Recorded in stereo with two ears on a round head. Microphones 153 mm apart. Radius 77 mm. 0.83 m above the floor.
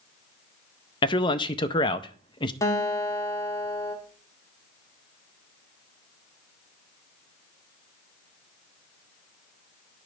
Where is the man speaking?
25° left (ahead or behind), 0.5 m.